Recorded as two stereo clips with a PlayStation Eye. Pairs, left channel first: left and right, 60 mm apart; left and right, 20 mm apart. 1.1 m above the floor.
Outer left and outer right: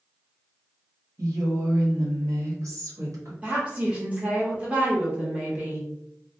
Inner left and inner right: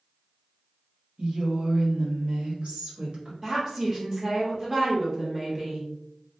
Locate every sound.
1.2 s a woman speaking: 65° right (ahead or behind), 1.2 m
3.4 s a woman speaking: 20° right (ahead or behind), 1.1 m